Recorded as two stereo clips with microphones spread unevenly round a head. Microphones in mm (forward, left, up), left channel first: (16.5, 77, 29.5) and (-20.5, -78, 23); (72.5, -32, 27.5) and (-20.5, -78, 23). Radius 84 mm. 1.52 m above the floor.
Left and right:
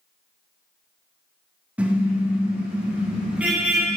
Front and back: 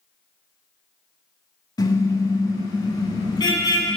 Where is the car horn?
25° right, 6 m; by 4.0 s 20° right, 7.5 m.